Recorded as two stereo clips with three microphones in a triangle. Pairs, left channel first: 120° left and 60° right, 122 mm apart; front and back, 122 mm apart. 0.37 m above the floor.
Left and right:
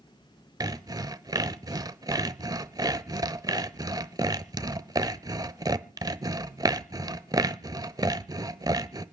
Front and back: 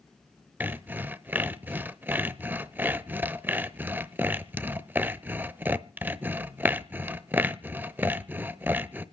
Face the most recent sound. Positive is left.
turn(degrees=-110)